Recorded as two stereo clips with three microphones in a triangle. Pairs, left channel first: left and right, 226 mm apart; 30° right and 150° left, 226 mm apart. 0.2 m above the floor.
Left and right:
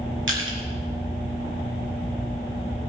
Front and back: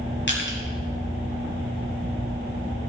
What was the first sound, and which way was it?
Crushing, 65° right.